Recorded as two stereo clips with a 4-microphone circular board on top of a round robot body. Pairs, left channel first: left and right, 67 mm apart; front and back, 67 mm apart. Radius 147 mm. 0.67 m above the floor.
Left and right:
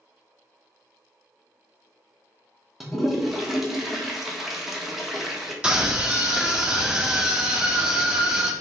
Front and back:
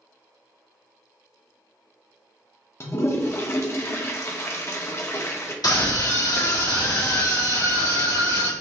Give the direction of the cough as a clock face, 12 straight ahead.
I don't hear a cough.